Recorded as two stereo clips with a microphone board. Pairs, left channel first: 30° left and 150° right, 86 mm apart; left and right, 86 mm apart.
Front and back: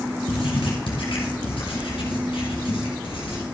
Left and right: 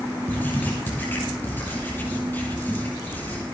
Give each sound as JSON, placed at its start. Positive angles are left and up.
{"t": 0.3, "sound": "writing", "azimuth_deg": 20, "distance_m": 4.0}